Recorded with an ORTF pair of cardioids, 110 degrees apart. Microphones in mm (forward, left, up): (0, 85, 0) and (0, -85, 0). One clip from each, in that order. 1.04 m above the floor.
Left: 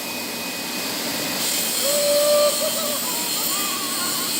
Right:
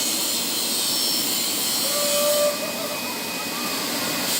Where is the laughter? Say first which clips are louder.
Left 5 dB; 40° left, 4.5 m; by 4.3 s 55° left, 5 m.